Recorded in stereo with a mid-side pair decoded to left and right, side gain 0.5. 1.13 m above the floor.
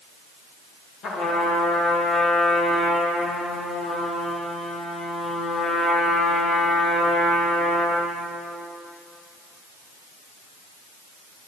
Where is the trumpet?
60° left, 1.4 m.